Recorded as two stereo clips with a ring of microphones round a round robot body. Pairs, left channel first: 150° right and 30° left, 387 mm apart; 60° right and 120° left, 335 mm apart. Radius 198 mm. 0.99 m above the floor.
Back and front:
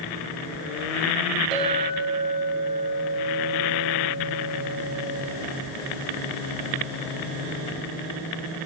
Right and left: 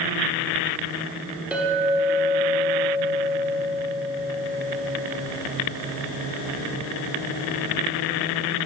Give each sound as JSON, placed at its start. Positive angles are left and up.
{"t": 1.5, "sound": "a clink", "azimuth_deg": 35, "distance_m": 1.5}